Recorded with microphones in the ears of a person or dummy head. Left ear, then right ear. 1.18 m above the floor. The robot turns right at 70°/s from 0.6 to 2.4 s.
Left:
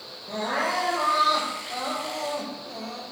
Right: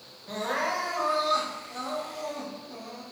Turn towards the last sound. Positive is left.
turn(degrees=105)